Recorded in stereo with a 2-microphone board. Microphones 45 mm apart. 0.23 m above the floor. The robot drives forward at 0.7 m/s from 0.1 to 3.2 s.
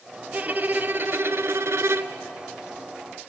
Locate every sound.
0.3 s a violin: 35° right (ahead or behind), 1.2 m; by 2.2 s 65° right (ahead or behind), 0.7 m